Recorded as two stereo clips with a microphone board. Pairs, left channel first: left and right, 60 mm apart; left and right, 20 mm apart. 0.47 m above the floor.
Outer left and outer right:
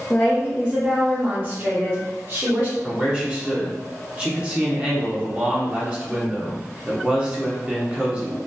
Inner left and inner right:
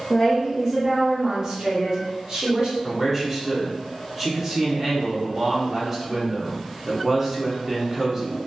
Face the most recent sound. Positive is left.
turn(degrees=-20)  # may be behind; listen again after turning